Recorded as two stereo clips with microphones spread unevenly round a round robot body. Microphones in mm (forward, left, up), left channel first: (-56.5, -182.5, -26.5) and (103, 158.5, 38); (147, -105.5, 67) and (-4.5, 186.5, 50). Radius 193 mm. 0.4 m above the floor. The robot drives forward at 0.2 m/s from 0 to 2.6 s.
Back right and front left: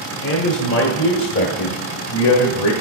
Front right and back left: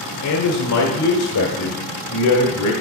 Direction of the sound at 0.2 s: 70° right.